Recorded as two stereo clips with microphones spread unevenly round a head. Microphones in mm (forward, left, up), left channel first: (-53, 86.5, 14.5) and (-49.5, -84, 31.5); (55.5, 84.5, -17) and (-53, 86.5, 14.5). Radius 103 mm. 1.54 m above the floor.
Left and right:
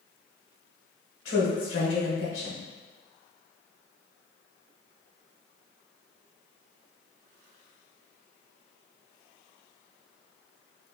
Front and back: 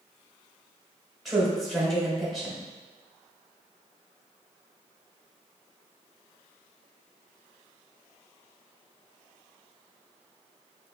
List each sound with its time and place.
1.2 s a woman speaking: 85° left, 1.5 m